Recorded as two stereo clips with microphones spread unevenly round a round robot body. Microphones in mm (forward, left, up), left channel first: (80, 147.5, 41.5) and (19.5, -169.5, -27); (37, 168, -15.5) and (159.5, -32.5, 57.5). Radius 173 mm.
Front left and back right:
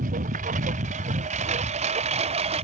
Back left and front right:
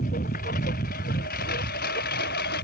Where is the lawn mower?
170° right; by 2.6 s 175° right.